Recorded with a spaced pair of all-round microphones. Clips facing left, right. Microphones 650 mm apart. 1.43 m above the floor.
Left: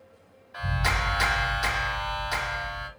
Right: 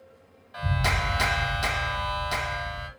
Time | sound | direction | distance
0.5 | a clap | 55° right (ahead or behind) | 1.1 m